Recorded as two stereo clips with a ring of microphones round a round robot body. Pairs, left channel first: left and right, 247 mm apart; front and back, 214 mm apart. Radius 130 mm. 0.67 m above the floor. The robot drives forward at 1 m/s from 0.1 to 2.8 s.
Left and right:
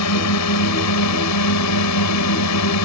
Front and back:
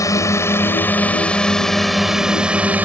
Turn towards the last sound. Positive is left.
turn(degrees=95)